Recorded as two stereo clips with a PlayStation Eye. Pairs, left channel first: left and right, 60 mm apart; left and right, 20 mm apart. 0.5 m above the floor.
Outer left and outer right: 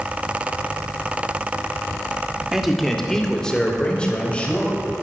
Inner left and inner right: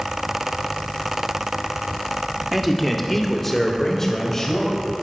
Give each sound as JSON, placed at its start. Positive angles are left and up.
{"t": 2.5, "sound": "a man speaking", "side_deg": -5, "distance_m": 1.2}